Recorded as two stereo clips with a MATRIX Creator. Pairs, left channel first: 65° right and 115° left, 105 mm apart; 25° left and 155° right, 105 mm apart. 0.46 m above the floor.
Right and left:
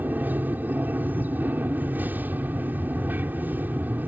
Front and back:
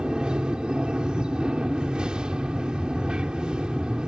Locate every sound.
0.0 s an aircraft: 140° left